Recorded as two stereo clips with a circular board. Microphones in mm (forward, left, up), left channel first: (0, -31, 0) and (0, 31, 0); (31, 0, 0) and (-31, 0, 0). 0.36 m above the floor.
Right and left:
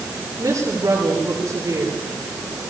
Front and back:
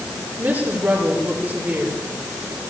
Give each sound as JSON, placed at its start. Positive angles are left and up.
{"t": 0.4, "sound": "a woman speaking", "azimuth_deg": 125, "distance_m": 8.5}